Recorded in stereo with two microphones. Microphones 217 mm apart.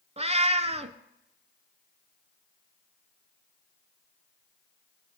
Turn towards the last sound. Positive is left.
turn(degrees=-30)  # may be behind; listen again after turning